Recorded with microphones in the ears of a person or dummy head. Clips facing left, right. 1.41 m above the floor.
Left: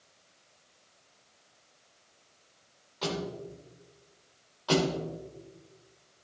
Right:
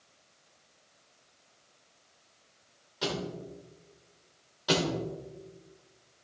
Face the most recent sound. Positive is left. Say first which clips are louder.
# left 2 dB
turn(degrees=-30)  # may be behind; listen again after turning